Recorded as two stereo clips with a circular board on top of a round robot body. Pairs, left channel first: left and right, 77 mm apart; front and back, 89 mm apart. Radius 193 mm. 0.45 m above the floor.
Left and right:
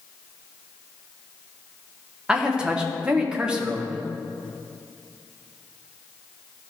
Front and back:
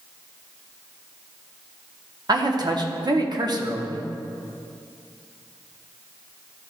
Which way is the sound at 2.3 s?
165° right.